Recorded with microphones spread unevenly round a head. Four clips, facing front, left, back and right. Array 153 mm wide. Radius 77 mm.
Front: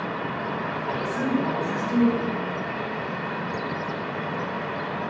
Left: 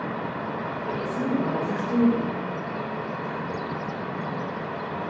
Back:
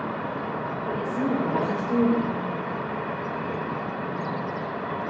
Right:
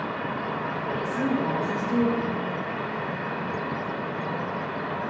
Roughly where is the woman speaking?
Behind left.